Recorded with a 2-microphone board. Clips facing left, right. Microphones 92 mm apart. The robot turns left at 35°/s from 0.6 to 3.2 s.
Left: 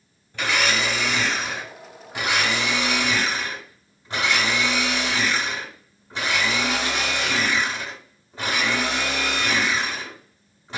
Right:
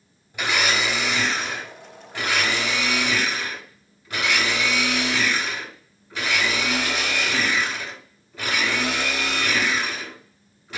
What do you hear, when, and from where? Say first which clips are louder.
0.3 s a blender: even; 155° right, 1.1 m; by 10.8 s 115° left, 1.1 m